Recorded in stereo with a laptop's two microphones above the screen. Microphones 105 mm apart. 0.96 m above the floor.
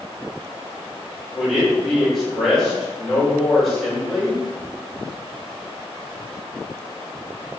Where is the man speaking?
5° right (ahead or behind), 1.7 m.